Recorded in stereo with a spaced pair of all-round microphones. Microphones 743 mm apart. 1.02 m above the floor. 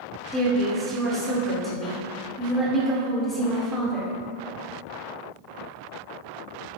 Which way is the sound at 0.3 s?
Centre (ahead or behind).